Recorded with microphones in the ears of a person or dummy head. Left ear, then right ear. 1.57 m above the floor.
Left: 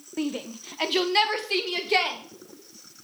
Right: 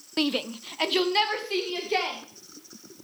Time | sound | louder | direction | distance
0.2 | a shout | right 5 dB | 45° right (ahead or behind) | 0.7 m